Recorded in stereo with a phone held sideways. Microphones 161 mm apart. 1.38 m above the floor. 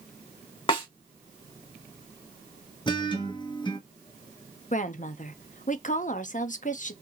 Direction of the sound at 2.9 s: 30° left (ahead or behind).